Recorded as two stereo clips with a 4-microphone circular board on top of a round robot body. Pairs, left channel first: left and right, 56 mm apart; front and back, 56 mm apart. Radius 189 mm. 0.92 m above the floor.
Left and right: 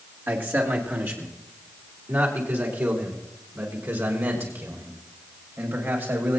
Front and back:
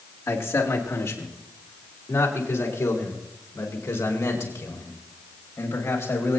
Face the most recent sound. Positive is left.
turn(degrees=-45)